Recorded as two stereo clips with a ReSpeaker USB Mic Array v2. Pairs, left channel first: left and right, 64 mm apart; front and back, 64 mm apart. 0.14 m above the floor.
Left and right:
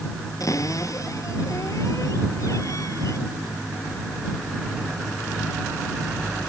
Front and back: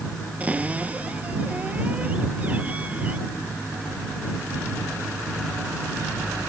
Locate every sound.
0.4 s a cupboard door: 115° left